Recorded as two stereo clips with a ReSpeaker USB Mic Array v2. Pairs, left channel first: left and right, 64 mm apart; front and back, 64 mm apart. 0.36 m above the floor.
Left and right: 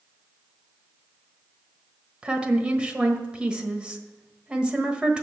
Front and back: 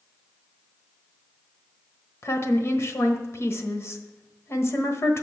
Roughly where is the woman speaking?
Ahead.